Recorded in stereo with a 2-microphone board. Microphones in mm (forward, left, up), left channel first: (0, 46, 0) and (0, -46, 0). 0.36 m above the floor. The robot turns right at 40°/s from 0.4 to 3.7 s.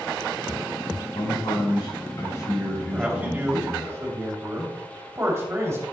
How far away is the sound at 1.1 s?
About 3 m.